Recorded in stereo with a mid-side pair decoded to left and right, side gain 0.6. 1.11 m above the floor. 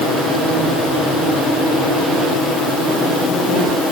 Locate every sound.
Only background noise.